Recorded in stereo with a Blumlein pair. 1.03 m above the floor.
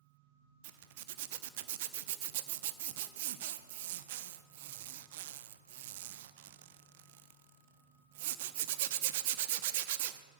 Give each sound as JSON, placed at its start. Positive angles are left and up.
{"t": 0.6, "sound": "a zipper", "azimuth_deg": -55, "distance_m": 0.8}